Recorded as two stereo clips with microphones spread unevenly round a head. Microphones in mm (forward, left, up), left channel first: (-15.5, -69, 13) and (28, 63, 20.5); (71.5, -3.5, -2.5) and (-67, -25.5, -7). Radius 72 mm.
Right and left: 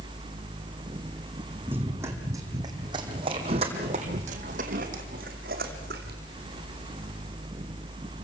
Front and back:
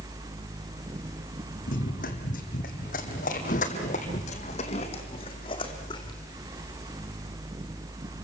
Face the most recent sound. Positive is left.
turn(degrees=70)